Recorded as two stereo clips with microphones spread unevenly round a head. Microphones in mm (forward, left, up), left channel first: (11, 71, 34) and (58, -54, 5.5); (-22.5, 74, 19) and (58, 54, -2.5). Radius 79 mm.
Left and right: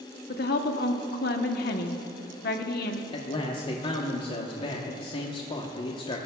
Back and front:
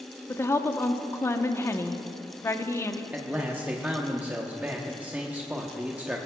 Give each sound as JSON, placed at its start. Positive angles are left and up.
{"t": 0.3, "sound": "a woman speaking", "azimuth_deg": 110, "distance_m": 1.0}
{"t": 3.1, "sound": "a man speaking", "azimuth_deg": 60, "distance_m": 1.0}